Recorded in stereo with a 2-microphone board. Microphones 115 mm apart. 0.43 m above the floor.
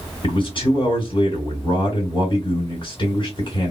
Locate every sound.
0.2 s a man speaking: 45° left (ahead or behind), 1.8 m